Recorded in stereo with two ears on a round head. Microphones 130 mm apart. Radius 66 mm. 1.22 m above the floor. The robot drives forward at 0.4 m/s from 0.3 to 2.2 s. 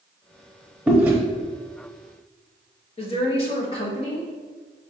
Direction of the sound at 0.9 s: 10° right (ahead or behind).